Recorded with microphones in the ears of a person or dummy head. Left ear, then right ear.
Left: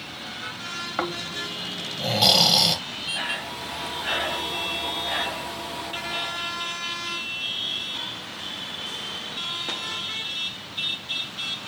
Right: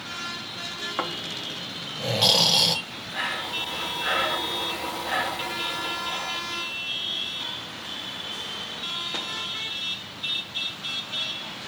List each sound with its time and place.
1.0 s snoring: centre (ahead or behind), 1.0 m
2.9 s breathing: 15° right (ahead or behind), 2 m